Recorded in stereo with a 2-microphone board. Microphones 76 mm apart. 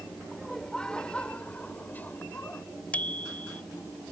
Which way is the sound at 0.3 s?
5° left (ahead or behind).